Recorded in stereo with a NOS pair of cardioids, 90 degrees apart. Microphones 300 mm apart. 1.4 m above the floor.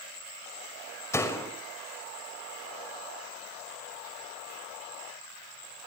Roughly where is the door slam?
Ahead.